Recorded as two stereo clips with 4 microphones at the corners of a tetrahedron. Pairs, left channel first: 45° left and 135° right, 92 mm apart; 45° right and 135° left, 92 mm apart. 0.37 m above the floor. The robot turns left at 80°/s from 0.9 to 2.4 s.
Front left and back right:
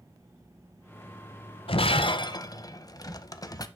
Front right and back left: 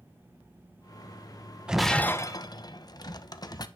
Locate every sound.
1.7 s breaking glass: 55° left, 0.5 m; by 3.7 s straight ahead, 0.5 m